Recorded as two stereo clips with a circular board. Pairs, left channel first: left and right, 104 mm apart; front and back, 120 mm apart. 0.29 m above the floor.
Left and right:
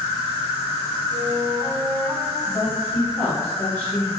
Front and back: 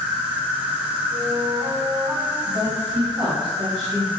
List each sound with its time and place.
0.0 s an insect: 100° left, 1.5 m
1.1 s a flute: 115° right, 0.9 m
2.5 s a woman speaking: 25° left, 1.6 m